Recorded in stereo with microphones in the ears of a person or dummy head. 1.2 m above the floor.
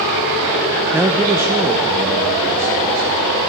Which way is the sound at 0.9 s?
10° right (ahead or behind).